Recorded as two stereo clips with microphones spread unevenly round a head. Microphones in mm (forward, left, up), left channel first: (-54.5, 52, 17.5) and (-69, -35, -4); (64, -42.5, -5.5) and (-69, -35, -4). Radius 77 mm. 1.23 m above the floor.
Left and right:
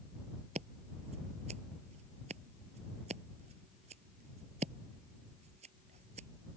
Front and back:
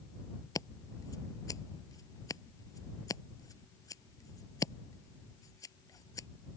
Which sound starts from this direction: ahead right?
Scissors, at 0.6 s.